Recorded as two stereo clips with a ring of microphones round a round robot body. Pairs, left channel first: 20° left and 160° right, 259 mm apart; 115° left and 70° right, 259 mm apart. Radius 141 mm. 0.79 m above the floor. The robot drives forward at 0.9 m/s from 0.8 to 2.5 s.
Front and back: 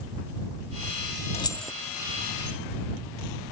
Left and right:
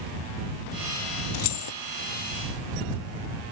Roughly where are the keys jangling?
Left.